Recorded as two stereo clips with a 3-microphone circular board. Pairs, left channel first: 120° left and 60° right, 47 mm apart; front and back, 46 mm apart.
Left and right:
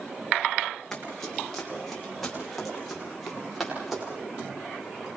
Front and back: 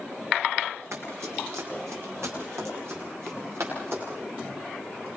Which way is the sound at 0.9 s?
160° right.